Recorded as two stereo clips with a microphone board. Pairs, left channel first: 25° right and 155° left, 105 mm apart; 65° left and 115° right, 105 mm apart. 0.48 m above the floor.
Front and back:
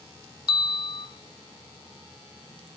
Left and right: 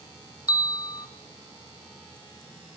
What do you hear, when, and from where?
0.5 s a bell: 15° left, 0.7 m